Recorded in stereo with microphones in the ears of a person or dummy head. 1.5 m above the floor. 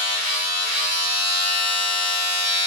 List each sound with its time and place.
0.0 s a machine running: 30° left (ahead or behind), 0.8 m